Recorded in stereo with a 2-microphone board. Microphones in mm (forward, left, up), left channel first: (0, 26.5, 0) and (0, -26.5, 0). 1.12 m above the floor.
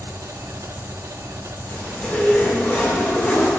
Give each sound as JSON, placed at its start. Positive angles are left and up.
{"t": 0.0, "sound": "an engine running", "side_deg": -80, "distance_m": 1.3}
{"t": 1.7, "sound": "a zipper", "side_deg": 25, "distance_m": 7.0}